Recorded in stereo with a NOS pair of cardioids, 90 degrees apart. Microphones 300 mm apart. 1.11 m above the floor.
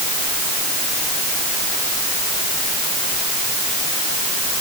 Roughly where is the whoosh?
No whoosh in this recording.